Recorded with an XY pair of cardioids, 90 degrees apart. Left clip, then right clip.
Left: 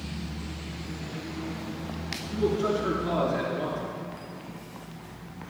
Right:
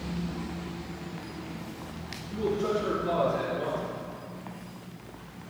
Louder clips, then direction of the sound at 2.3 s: Left 2 dB; 60° left.